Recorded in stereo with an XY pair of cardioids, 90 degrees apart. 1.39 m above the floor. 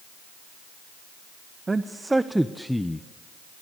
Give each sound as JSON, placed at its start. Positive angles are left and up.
{"t": 1.7, "sound": "a man speaking", "azimuth_deg": -30, "distance_m": 1.2}